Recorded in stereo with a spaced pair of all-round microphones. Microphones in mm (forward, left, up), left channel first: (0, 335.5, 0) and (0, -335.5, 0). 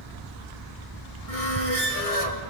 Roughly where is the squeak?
Right.